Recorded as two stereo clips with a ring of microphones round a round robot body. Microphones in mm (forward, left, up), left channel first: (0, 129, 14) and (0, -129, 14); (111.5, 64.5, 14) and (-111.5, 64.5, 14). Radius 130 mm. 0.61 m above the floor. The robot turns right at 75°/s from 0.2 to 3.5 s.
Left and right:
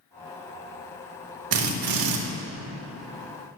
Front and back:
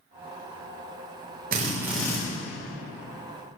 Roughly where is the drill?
Behind right.